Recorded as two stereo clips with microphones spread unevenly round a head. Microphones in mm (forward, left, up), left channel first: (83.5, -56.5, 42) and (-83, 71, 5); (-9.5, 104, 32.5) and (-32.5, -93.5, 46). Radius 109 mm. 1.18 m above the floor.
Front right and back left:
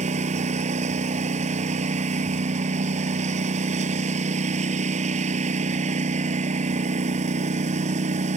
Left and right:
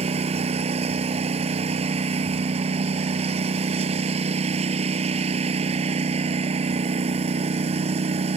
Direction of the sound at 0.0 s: 155° right.